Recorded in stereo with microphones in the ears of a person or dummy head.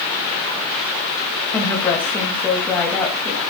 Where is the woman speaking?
10° left (ahead or behind), 2.5 m.